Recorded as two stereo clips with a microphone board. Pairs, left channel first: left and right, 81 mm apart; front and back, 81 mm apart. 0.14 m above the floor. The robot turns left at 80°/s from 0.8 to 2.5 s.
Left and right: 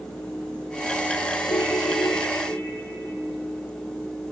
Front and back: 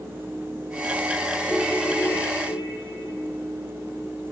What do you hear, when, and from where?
1.5 s a ringtone: 105° left, 2 m; by 3.2 s 25° left, 2 m